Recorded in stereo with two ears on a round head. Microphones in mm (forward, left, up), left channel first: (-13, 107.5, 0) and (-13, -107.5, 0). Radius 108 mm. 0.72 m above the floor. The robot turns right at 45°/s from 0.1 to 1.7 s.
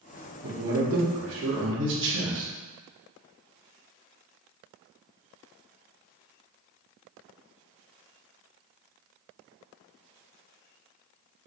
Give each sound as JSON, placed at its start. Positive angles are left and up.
{"t": 0.4, "sound": "a man speaking", "azimuth_deg": -120, "distance_m": 0.9}